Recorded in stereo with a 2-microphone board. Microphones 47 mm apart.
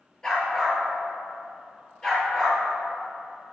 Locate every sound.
0.2 s a dog barking: 15° left (ahead or behind), 3.5 m